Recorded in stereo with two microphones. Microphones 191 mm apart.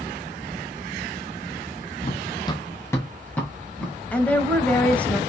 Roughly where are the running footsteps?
Left.